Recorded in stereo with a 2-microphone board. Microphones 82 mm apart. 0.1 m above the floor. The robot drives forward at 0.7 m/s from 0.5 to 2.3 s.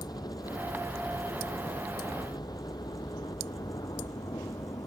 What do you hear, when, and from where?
0.0 s a helicopter: 60° left (ahead or behind)